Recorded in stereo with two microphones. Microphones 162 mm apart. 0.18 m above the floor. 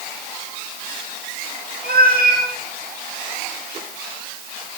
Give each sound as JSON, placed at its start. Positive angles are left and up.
{"t": 1.8, "sound": "a cat meowing", "side_deg": -70, "distance_m": 5.0}